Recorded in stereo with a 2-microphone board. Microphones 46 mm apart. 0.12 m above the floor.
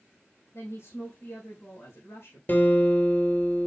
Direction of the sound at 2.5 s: 45° left (ahead or behind).